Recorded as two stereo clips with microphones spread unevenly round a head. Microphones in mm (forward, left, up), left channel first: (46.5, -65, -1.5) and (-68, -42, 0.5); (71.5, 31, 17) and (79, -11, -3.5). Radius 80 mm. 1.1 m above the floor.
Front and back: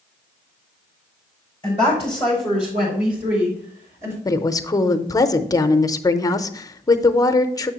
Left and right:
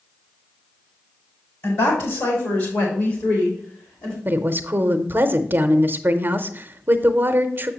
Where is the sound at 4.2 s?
70° right, 0.7 m.